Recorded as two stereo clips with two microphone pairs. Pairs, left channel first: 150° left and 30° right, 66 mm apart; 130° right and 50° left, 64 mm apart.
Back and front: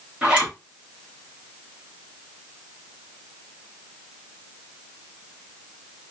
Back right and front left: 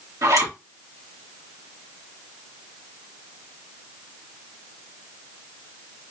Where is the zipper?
40° left, 2.5 m.